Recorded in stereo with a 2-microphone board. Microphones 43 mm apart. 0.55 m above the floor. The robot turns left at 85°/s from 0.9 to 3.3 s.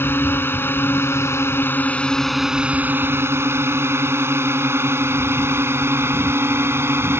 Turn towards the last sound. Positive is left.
turn(degrees=-70)  # may be behind; listen again after turning